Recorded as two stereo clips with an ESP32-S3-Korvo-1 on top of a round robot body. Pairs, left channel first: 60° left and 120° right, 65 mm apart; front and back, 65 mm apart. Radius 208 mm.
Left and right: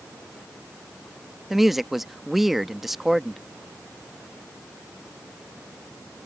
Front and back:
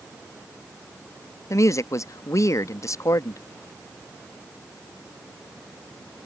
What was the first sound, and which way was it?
A woman speaking, 35° right.